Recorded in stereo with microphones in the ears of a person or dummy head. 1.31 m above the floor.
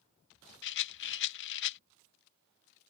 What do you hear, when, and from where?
0.6 s a rattle: 70° left (ahead or behind)